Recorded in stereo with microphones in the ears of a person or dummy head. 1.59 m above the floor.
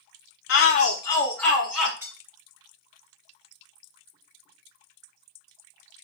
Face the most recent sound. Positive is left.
turn(degrees=-10)  # may be behind; listen again after turning